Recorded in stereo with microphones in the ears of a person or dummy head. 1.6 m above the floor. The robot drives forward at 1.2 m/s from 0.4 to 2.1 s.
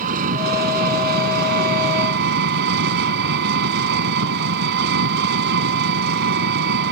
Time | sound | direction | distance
0.0 | an engine running | 50° right (ahead or behind) | ?